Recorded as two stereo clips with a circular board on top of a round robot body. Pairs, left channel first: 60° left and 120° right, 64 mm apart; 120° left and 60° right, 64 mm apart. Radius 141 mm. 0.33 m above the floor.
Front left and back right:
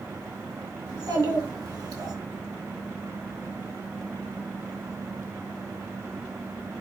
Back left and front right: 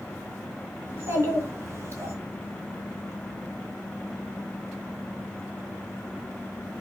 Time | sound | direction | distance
0.9 | a child speaking | 110° right | 4.5 m